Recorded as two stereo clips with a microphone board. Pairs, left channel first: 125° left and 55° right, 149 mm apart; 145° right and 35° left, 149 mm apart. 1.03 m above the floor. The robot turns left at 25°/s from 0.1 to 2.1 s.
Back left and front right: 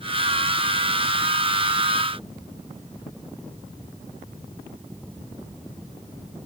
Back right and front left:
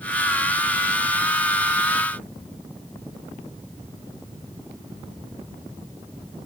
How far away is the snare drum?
I don't hear a snare drum.